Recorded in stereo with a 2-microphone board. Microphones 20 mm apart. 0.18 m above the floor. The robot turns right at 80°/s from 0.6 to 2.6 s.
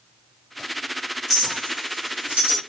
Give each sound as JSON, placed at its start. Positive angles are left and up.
{"t": 1.3, "sound": "a clink", "side_deg": -5, "distance_m": 2.5}